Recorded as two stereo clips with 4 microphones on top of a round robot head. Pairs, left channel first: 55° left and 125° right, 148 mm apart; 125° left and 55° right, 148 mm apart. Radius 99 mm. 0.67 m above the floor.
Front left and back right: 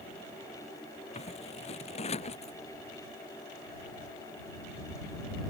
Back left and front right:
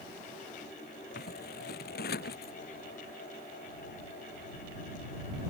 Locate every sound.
1.1 s scissors: 105° left